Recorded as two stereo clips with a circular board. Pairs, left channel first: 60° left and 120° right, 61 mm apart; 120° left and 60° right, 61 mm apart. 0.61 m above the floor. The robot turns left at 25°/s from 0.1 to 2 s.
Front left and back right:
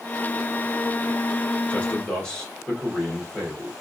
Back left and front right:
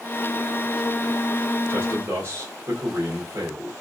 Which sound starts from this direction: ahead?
A man speaking, at 1.7 s.